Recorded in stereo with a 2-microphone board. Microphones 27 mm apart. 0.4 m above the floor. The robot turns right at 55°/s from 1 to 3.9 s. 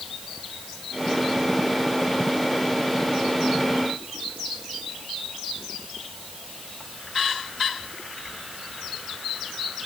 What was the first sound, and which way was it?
Only background noise.